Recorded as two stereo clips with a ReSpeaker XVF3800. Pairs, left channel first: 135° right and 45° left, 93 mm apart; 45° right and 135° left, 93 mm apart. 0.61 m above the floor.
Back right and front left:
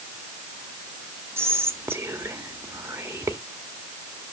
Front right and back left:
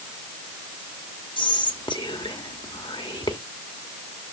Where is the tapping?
No tapping in this recording.